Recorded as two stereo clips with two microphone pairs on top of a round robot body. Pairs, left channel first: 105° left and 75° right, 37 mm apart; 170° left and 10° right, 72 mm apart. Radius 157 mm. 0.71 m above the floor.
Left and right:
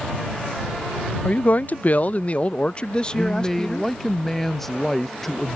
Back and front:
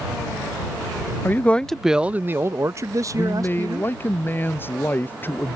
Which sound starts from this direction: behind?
A man speaking, at 1.2 s.